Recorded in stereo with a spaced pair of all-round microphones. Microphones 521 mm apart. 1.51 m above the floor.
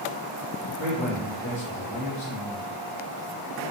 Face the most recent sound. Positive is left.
turn(degrees=-70)  # may be behind; listen again after turning